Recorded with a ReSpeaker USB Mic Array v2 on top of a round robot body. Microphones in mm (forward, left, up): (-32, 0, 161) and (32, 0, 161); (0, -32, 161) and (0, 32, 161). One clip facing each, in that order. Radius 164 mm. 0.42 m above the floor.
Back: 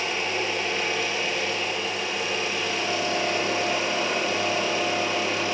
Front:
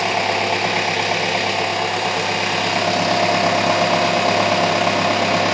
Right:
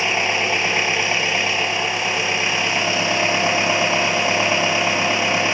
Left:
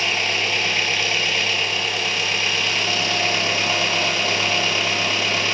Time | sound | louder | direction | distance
0.0 | an engine running | front 8 dB, right 3 dB | 25° right | 2 m